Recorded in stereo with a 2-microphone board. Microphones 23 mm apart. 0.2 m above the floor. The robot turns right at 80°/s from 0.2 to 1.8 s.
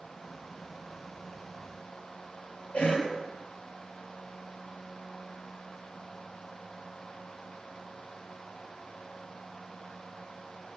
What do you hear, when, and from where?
2.7 s a cough: 65° left (ahead or behind), 3.5 m